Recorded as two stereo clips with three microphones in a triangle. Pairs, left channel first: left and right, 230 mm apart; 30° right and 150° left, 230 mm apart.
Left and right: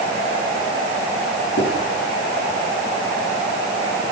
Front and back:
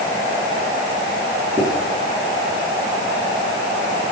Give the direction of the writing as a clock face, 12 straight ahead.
10 o'clock.